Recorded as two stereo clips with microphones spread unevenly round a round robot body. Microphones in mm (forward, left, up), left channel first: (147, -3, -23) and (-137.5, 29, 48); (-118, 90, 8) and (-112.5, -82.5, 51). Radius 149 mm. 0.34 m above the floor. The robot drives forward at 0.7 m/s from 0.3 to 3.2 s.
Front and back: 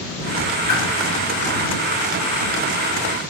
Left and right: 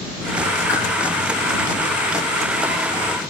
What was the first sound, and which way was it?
A whoosh, 70° left.